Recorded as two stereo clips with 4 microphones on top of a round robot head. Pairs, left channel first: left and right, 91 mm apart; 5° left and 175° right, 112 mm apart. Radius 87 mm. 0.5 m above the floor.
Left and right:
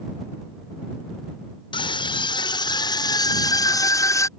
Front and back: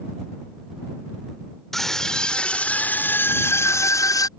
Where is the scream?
90° left; by 4.3 s 50° left.